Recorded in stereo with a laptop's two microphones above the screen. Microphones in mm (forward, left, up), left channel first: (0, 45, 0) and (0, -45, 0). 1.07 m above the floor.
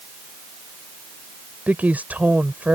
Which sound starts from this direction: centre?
A woman speaking, at 1.7 s.